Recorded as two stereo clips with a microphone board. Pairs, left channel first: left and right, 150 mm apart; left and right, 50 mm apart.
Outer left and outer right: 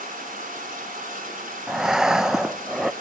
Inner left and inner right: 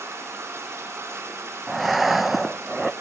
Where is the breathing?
5° right (ahead or behind), 0.5 m.